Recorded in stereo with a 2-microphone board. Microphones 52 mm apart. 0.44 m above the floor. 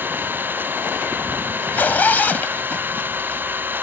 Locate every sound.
0.0 s an engine running: 40° right (ahead or behind)
1.6 s a zipper: 35° left (ahead or behind)